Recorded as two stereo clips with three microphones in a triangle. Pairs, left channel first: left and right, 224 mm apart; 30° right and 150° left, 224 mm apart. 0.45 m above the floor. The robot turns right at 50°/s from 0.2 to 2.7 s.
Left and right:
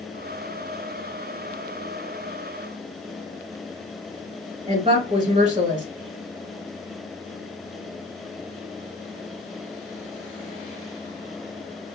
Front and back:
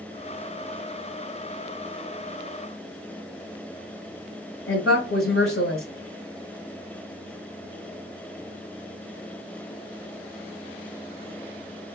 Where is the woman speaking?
35° right, 1.8 m.